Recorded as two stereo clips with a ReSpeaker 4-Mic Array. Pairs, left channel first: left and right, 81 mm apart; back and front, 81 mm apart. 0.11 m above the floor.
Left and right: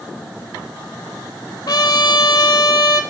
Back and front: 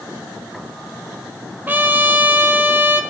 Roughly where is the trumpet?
Ahead left.